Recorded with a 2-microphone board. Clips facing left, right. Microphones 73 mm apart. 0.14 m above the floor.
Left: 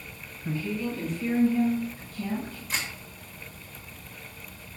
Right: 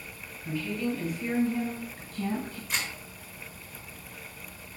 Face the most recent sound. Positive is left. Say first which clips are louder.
# even
turn(degrees=0)  # may be behind; listen again after turning